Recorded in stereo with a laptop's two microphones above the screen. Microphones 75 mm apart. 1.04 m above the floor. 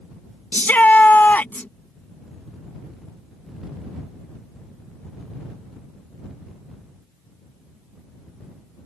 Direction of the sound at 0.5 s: 20° left (ahead or behind).